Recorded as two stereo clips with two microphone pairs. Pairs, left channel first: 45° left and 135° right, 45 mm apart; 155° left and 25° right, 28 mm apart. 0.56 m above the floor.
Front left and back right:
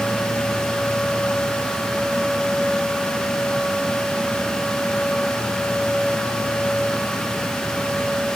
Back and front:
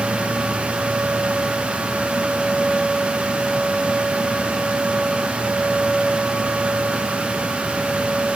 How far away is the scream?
I don't hear a scream.